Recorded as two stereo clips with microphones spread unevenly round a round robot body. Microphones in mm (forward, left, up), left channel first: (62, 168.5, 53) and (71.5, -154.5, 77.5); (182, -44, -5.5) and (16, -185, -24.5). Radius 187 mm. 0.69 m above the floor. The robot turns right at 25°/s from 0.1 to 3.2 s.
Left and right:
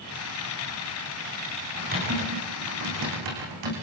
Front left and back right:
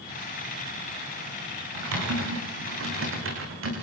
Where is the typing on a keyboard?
160° right, 9 m; by 3.7 s 125° right, 9 m.